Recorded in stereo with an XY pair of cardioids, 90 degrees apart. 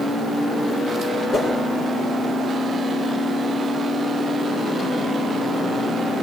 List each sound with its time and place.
1.3 s a whoosh: 35° left, 7 m